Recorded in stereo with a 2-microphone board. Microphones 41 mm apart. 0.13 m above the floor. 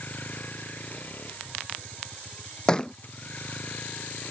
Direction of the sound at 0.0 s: 45° left (ahead or behind).